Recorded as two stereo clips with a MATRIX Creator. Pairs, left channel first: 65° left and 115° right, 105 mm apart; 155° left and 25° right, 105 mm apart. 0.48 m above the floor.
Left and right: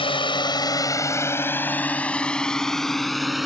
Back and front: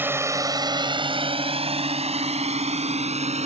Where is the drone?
45° left; by 3.5 s 25° right.